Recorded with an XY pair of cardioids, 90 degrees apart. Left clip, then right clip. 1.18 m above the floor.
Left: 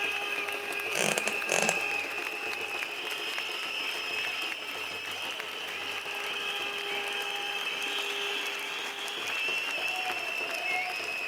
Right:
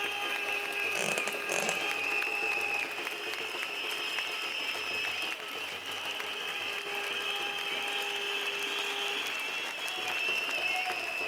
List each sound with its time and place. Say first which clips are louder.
0.9 s a squeak: left 3 dB; 40° left, 0.6 m